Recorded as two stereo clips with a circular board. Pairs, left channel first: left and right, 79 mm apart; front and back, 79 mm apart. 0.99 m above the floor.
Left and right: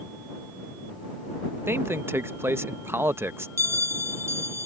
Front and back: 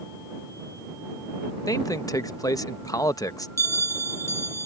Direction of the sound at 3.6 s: 45° right.